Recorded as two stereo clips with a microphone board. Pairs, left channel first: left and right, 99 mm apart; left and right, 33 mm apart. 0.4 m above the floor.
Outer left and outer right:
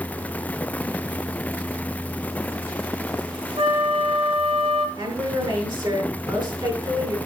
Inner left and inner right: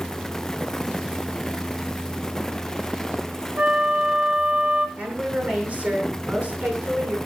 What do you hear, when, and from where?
3.6 s a flute: 75° right (ahead or behind), 2 m
5.0 s a woman speaking: 55° right (ahead or behind), 6 m